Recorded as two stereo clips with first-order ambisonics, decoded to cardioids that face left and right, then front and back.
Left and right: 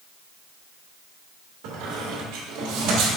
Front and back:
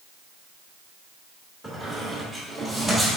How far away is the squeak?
About 2.0 m.